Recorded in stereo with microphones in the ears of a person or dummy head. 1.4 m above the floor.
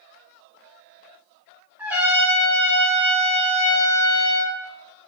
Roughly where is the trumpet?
Centre.